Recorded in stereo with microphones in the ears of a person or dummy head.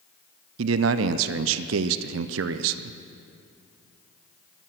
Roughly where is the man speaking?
Right.